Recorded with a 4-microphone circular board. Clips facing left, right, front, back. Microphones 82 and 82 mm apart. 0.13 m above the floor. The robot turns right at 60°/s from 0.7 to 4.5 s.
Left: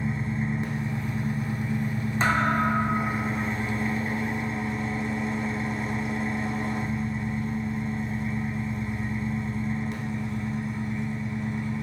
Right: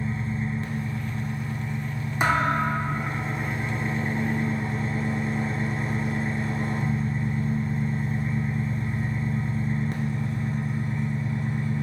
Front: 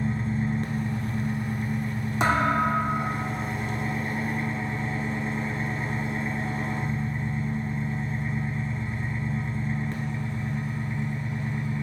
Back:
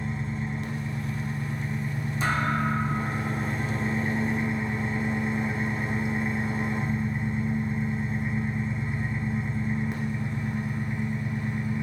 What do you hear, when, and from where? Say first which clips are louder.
0.0 s an engine running: left 1 dB, front 4 dB; 25° left, 0.7 m; by 11.8 s 110° right, 0.7 m
2.2 s a thud: right 1 dB, front 4 dB; 15° right, 0.5 m; by 3.5 s 60° left, 0.5 m